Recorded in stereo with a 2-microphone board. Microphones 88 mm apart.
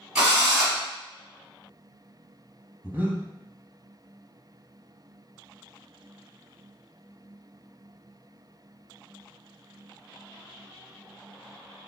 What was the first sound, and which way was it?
A drill, 10° right (ahead or behind).